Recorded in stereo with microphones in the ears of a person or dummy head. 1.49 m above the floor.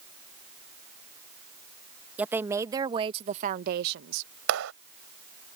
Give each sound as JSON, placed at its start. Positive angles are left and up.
{"t": 2.2, "sound": "a woman speaking", "side_deg": -5}
{"t": 4.5, "sound": "a clap", "side_deg": -75}